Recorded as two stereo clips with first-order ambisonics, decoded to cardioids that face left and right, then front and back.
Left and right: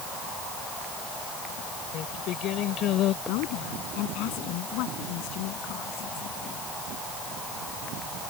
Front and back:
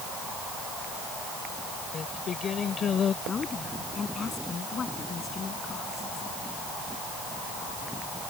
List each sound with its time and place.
1.9 s singing: 55° left
3.2 s a woman speaking: 70° left